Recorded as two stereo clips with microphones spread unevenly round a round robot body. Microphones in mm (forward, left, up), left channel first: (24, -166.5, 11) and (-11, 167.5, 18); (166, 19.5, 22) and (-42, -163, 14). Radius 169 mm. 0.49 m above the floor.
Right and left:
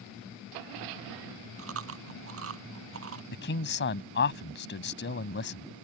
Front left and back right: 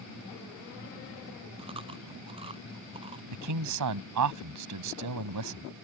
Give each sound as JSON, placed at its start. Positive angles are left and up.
{"t": 1.6, "sound": "chewing", "azimuth_deg": 145}
{"t": 3.3, "sound": "a man speaking", "azimuth_deg": -140}